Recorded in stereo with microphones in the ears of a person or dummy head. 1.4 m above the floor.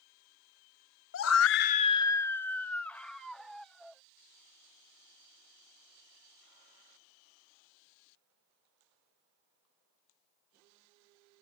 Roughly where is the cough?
No cough in this recording.